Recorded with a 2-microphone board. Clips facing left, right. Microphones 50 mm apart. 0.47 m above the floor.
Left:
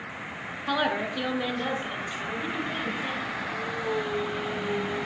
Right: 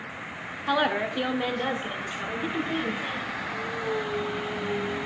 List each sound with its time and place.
0.7 s a woman speaking: 10° right (ahead or behind), 0.8 m; by 3.3 s 15° right (ahead or behind), 3 m